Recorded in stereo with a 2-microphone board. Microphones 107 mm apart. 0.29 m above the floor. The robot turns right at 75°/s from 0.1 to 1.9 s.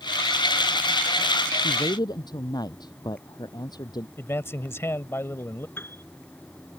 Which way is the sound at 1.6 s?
60° left (ahead or behind).